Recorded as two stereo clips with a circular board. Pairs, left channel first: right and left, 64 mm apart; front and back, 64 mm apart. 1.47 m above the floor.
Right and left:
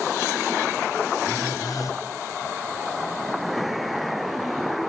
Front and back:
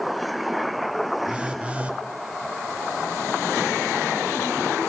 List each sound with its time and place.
1.3 s a phone buzzing: 110° right, 0.6 m